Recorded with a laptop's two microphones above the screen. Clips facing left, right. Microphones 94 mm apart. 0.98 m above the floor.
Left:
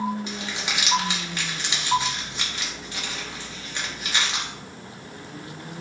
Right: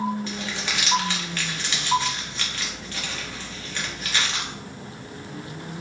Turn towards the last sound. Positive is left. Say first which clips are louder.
# right 1 dB
turn(degrees=15)  # may be behind; listen again after turning